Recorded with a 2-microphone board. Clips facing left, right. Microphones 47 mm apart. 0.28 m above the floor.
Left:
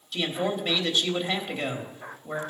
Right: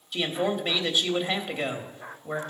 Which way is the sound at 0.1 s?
10° right (ahead or behind).